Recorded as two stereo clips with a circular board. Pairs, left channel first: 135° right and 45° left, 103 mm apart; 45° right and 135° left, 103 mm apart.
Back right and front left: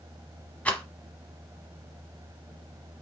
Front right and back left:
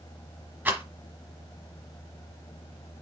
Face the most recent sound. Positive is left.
turn(degrees=175)